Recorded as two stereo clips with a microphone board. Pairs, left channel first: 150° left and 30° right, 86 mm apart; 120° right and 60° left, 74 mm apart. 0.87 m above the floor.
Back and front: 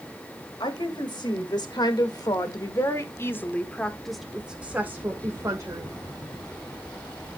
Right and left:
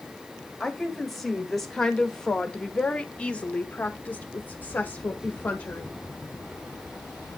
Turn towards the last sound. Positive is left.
turn(degrees=-60)